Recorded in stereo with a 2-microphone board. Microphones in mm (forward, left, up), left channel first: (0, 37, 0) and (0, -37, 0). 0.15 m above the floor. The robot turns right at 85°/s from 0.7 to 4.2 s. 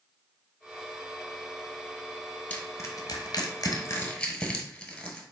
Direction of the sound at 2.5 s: 20° left (ahead or behind).